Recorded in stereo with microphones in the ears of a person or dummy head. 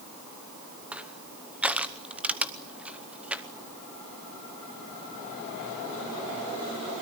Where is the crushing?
5° right (ahead or behind), 1.0 m.